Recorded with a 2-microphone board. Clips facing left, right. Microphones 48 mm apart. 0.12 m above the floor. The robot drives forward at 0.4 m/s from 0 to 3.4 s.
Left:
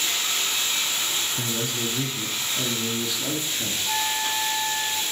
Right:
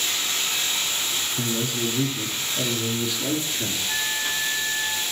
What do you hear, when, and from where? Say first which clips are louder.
1.4 s a man speaking: right 2 dB; centre (ahead or behind), 1.1 m
3.9 s a flute: left 2 dB; 50° left (ahead or behind), 1.0 m